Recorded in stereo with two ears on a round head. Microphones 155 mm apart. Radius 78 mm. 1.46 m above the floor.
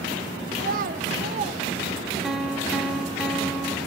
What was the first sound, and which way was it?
A child speaking, 55° right (ahead or behind).